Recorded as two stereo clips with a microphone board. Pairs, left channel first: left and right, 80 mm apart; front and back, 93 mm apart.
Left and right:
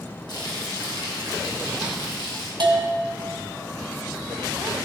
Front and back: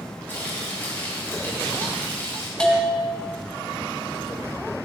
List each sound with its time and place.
0.3 s frying: 65° left, 2.5 m
2.6 s a bell: 80° right, 1.0 m